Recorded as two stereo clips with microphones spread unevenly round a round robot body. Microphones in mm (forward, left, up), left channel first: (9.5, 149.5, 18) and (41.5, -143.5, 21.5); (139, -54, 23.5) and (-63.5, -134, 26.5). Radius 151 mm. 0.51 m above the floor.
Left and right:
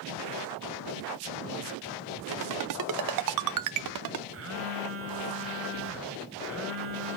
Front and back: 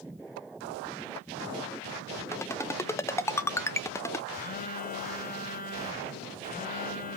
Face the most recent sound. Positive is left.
turn(degrees=-35)